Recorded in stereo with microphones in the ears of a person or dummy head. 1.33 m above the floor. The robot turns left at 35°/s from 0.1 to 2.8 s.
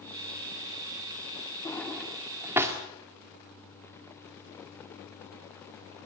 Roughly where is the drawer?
Centre.